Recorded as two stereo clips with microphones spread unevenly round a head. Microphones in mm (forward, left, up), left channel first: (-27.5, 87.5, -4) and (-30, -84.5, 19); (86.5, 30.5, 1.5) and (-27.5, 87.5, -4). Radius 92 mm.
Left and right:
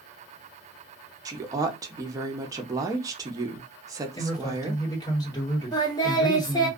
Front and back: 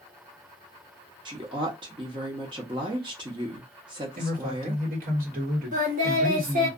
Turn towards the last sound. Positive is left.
turn(degrees=160)